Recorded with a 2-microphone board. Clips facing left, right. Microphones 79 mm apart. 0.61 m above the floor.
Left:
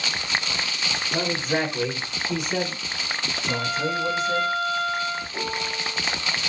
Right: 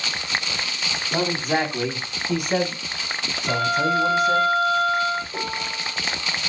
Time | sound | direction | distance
1.1 | a man speaking | 80° right | 5 m
3.5 | a violin | 55° right (ahead or behind) | 6.5 m
5.3 | a piano | 55° right (ahead or behind) | 6.5 m